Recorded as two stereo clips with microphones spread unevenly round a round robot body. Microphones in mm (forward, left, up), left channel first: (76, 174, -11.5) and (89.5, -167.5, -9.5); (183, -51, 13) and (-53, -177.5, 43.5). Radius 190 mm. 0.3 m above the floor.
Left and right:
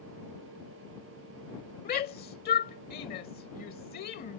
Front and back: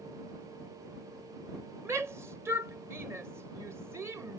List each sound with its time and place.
1.9 s a shout: 125° left